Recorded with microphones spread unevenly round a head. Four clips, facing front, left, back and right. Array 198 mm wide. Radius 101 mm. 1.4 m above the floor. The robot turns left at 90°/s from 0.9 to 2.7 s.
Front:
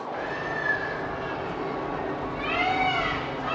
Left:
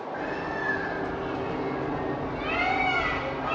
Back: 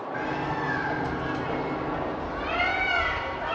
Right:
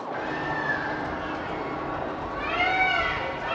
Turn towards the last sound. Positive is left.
turn(degrees=45)